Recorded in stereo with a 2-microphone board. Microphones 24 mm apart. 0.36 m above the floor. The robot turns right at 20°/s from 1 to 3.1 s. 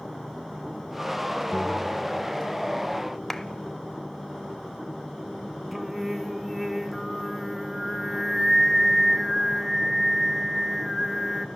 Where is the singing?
Centre (ahead or behind), 1.1 m.